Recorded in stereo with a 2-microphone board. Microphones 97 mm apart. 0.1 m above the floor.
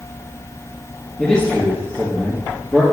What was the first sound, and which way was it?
A man speaking, 10° left (ahead or behind).